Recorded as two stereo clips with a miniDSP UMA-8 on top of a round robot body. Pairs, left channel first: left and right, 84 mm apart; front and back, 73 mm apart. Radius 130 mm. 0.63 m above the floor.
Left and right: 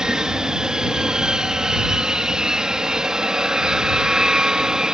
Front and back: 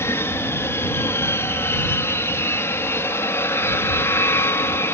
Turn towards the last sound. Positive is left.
turn(degrees=-15)